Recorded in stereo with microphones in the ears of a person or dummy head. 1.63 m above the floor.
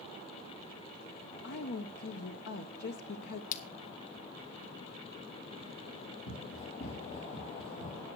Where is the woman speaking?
55° left (ahead or behind), 0.7 m.